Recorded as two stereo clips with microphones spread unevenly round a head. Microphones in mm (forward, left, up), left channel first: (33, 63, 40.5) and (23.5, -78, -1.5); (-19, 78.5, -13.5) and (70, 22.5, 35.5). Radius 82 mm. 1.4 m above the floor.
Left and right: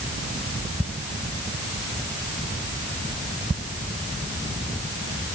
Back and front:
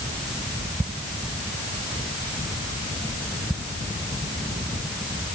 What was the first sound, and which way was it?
Only background noise.